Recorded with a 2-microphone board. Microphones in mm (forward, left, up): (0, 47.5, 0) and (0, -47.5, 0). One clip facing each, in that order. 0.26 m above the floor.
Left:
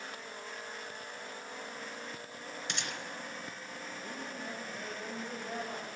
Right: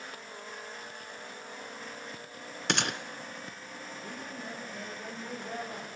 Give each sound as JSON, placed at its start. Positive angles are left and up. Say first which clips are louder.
{"t": 2.7, "sound": "a gunshot", "louder": "right 11 dB", "side_deg": -70, "distance_m": 1.0}
{"t": 4.0, "sound": "a woman speaking", "louder": "right 1 dB", "side_deg": 0, "distance_m": 10.0}